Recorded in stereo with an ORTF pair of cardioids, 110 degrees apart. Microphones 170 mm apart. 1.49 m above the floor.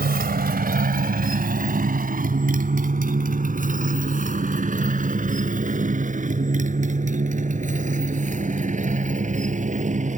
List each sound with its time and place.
0.0 s a motorcycle: 60° right; by 10.2 s 40° right